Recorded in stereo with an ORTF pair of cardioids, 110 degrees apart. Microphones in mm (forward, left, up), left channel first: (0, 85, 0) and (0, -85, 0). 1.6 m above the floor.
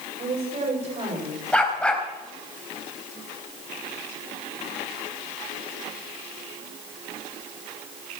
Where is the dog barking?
5° left, 4 m.